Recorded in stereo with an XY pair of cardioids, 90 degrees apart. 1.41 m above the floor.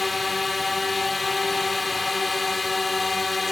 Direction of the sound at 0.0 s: 25° left.